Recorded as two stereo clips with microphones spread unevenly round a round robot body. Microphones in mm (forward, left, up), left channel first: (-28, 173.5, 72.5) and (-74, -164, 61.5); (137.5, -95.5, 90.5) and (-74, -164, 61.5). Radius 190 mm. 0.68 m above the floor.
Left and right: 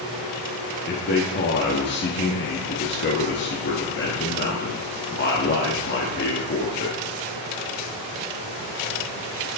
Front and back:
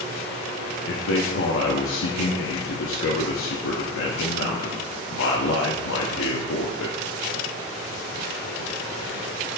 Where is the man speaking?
30° left, 1.0 m.